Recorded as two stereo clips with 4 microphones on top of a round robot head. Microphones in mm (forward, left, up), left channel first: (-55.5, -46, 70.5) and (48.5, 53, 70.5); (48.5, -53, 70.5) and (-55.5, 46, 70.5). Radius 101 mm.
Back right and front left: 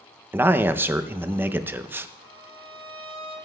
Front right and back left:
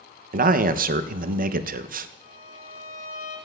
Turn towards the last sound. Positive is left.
turn(degrees=10)